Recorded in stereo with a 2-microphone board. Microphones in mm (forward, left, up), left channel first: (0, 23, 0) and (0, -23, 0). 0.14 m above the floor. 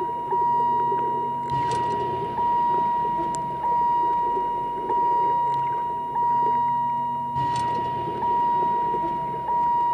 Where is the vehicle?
10° right (ahead or behind); by 9.9 s 15° left (ahead or behind).